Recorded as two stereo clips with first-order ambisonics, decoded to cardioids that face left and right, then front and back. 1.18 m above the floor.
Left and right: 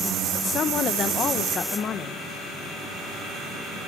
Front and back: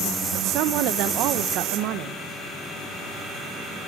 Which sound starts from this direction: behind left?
A woman speaking, at 0.3 s.